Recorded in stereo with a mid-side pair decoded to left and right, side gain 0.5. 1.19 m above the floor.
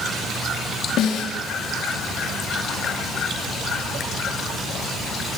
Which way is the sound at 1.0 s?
65° left.